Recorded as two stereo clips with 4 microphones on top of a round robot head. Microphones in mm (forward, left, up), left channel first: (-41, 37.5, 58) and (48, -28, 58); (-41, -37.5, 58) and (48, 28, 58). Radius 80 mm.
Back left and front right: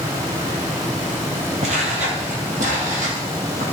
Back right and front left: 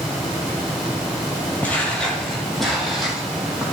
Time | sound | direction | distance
1.6 | footsteps | 70° right | 1.7 m